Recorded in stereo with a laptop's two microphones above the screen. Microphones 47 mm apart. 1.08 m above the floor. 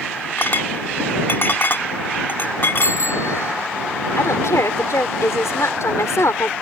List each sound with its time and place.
0.4 s a clink: 50° left (ahead or behind)
2.8 s a bicycle bell: 85° left
4.2 s a woman speaking: 80° left